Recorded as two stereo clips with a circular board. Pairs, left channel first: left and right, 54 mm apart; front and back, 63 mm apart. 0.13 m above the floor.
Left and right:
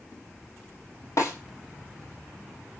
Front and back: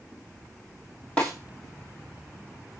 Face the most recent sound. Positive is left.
turn(degrees=70)